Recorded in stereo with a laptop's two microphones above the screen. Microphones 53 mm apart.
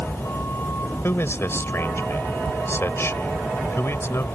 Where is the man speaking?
45° left (ahead or behind).